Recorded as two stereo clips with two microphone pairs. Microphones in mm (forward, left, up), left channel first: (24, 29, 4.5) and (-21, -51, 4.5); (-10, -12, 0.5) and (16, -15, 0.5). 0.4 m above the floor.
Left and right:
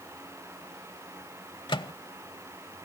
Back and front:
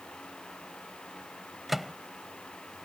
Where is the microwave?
75° left.